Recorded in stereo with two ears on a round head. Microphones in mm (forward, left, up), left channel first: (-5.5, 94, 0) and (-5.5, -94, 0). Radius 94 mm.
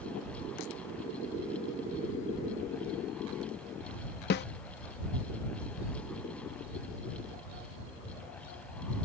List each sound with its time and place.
4.3 s a snare drum: 50° left (ahead or behind)